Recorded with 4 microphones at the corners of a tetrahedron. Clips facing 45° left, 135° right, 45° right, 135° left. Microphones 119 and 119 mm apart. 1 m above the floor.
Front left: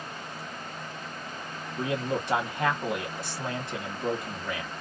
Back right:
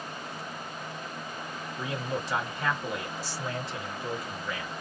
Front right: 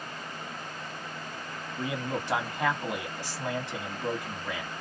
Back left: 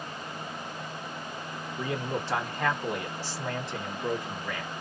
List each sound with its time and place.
1.8 s a man speaking: 25° left, 1.4 m